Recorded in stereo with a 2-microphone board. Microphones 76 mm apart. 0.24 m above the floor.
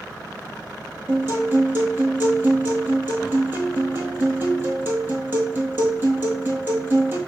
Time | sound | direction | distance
1.1 | a guitar | 30° right (ahead or behind) | 1.5 m